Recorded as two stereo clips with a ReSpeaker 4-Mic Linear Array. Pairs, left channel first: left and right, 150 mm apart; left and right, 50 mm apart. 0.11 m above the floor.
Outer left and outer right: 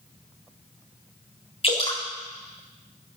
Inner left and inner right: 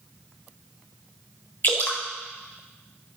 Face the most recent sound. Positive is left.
turn(degrees=40)  # may be behind; listen again after turning